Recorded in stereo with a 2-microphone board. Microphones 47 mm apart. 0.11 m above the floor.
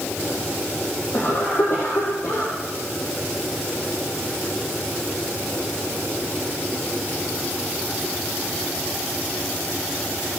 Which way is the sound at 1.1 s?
70° left (ahead or behind).